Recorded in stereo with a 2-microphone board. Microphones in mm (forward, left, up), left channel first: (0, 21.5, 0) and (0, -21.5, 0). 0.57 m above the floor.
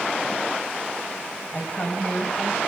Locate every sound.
1.5 s a woman speaking: 35° left (ahead or behind), 4.5 m; by 2.6 s 30° left (ahead or behind), 3.5 m